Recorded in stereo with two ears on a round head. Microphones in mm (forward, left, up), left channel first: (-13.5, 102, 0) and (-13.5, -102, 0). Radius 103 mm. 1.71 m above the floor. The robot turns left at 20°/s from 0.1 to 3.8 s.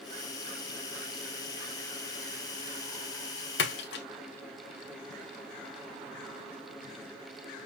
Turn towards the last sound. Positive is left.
turn(degrees=50)  # may be behind; listen again after turning